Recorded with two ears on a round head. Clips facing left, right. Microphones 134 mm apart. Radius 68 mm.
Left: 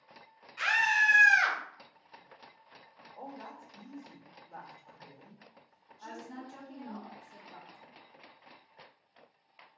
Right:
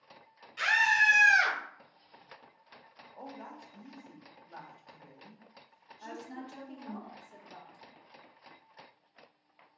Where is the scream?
35° right (ahead or behind), 1.1 m; by 1.6 s 50° right (ahead or behind), 1.3 m.